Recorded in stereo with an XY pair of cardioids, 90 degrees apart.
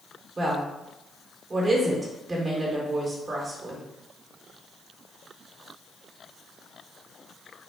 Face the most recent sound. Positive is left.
turn(degrees=-35)